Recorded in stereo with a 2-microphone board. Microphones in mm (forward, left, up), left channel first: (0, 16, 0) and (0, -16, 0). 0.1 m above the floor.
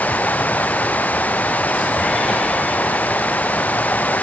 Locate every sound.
0.0 s running water: 55° left (ahead or behind)